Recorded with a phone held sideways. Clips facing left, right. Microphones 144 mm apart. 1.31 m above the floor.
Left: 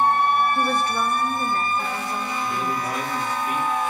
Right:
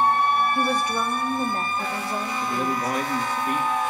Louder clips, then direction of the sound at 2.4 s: Right 2 dB; 50° right (ahead or behind).